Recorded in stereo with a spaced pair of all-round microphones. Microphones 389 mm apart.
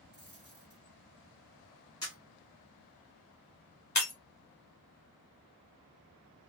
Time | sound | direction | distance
0.1 | a dropped coin | 45° left (ahead or behind) | 1.9 m
2.0 | a camera shutter | 40° left (ahead or behind) | 1.7 m
4.0 | breaking glass | 45° left (ahead or behind) | 0.9 m